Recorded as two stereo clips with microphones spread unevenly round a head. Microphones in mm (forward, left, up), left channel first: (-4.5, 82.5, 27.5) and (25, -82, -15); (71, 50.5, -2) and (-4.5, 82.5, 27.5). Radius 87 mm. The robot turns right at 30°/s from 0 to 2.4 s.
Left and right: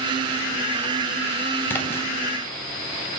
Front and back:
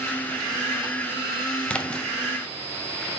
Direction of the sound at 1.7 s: 75° left.